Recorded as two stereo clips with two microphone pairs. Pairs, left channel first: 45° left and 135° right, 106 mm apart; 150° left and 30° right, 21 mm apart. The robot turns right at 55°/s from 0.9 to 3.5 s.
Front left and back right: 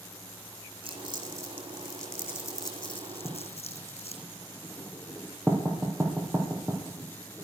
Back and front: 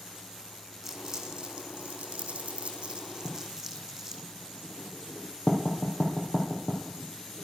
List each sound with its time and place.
0.8 s crumpling: 100° right, 2.5 m; by 4.2 s 45° left, 2.5 m
3.2 s writing: 145° left, 3.5 m; by 7.4 s 160° left, 3.5 m